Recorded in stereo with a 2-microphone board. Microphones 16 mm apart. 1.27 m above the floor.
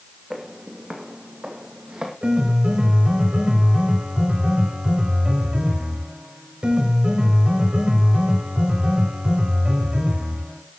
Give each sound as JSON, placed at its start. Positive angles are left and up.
{"t": 0.3, "sound": "footsteps", "side_deg": -30, "distance_m": 3.0}
{"t": 2.2, "sound": "a piano", "side_deg": -65, "distance_m": 4.0}